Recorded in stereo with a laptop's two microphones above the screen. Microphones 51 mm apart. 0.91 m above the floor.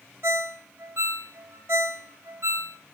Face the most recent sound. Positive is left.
turn(degrees=-70)  # may be behind; listen again after turning